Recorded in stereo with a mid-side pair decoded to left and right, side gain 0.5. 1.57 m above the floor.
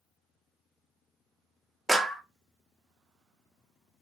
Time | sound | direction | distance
1.9 | a clap | 10° right | 0.5 m